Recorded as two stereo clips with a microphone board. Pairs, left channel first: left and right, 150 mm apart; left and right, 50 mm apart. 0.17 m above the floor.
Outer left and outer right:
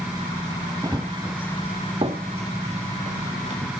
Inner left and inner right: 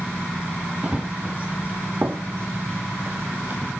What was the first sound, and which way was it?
Running footsteps, 25° right (ahead or behind).